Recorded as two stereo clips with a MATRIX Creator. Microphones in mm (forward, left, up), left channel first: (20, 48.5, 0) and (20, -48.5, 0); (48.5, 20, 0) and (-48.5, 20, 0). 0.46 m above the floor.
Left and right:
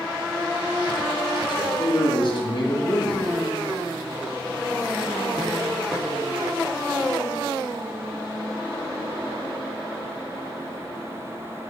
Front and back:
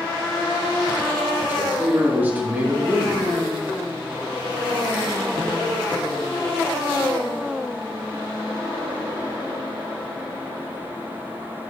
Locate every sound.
1.5 s a man speaking: 110° left, 2.5 m